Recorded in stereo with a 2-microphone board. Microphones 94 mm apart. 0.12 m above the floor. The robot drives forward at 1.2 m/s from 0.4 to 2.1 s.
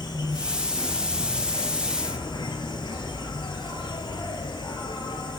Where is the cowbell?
I don't hear a cowbell.